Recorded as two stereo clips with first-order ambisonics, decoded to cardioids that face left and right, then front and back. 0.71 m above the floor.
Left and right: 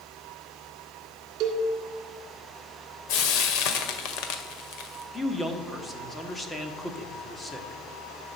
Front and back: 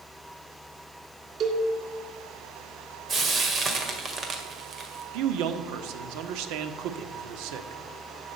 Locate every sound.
1.4 s a cowbell: 125° right, 2.5 m
3.1 s frying: 115° left, 1.8 m
5.1 s a man speaking: 175° left, 1.2 m